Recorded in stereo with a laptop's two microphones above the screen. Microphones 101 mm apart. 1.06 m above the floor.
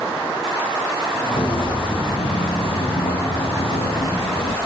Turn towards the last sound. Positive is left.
turn(degrees=65)  # may be behind; listen again after turning